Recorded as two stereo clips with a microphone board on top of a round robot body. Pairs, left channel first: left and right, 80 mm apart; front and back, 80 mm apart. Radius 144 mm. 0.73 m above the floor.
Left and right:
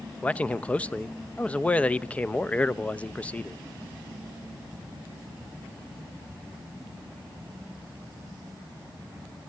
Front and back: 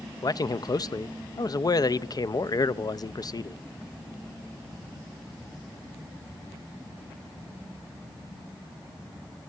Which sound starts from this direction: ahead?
A man speaking, at 0.2 s.